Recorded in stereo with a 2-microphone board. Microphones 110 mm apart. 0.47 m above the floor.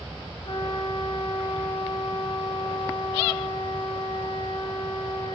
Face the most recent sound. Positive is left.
turn(degrees=55)  # may be behind; listen again after turning